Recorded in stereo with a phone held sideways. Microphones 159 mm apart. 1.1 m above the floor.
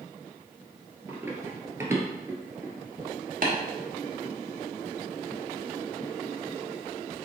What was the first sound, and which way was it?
Running footsteps, 15° right (ahead or behind).